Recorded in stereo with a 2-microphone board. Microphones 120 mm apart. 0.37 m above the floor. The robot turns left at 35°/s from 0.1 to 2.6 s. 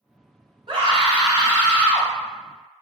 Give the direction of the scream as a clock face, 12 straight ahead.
4 o'clock.